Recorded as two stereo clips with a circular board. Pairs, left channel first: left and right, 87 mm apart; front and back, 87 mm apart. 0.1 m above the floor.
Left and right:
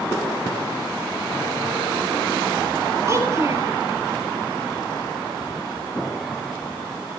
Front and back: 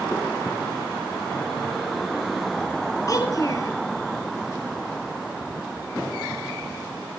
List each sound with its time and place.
3.1 s a child speaking: 40° right, 2 m